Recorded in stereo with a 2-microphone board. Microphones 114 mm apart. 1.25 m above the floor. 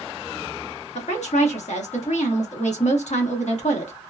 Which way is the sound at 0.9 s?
80° left.